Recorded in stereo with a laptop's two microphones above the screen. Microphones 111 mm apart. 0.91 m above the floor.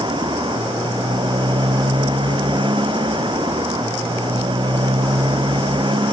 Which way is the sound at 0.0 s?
45° right (ahead or behind).